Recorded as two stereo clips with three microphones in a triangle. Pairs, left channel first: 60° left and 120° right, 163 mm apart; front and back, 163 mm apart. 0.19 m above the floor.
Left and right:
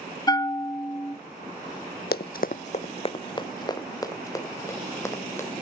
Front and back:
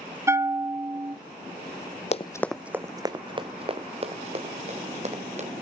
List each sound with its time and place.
0.3 s a bell: 115° left, 0.7 m
2.1 s running footsteps: 50° left, 0.5 m; by 5.6 s 135° left, 3.5 m